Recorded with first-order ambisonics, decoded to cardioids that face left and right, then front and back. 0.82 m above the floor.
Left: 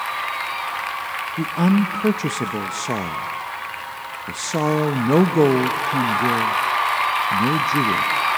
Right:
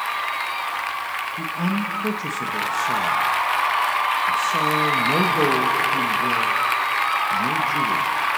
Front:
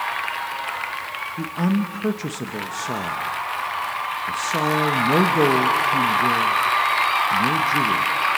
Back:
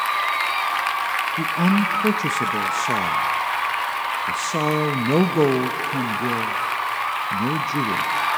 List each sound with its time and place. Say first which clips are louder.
1.4 s a woman speaking: left 3 dB, back 5 dB; 105° left, 0.5 m